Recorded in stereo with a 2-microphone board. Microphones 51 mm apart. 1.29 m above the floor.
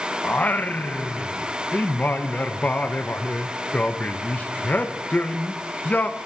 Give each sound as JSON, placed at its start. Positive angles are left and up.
{"t": 0.2, "sound": "singing", "side_deg": 30, "distance_m": 0.7}